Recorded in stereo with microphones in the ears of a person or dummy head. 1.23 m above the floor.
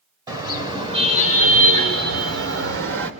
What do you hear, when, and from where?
0.3 s a car horn: 15° right (ahead or behind), 3.5 m; by 3.1 s 80° right, 2.5 m